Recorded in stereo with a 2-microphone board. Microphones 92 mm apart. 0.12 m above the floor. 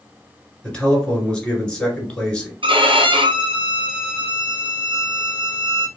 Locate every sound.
0.6 s a man speaking: 10° left (ahead or behind), 1.6 m
2.6 s a violin: 65° right (ahead or behind), 0.8 m